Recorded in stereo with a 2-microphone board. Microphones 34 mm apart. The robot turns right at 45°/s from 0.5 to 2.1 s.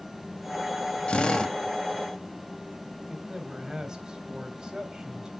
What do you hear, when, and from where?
1.1 s a drill: 30° left (ahead or behind), 1.2 m; by 1.6 s 15° left (ahead or behind), 1.2 m
3.1 s a man speaking: 20° right (ahead or behind), 1.9 m